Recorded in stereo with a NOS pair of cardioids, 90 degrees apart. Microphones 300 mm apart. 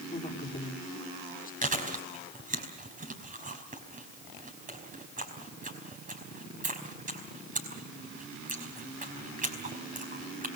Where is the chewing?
25° right, 5 m.